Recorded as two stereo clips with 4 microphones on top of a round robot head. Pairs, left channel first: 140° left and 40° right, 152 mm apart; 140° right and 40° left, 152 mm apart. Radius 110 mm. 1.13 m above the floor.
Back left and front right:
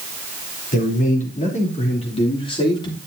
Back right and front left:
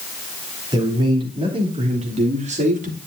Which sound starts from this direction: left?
A man speaking, at 0.7 s.